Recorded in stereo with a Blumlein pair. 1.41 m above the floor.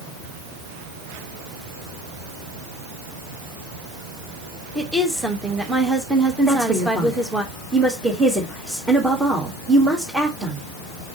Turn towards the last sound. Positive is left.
turn(degrees=-5)